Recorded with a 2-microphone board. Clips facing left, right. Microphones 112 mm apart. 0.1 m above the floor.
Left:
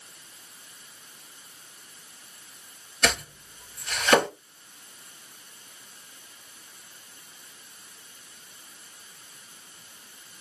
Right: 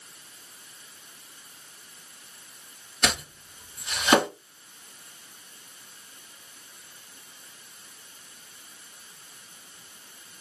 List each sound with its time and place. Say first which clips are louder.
3.0 s chopping: left 2 dB; 15° right (ahead or behind), 2 m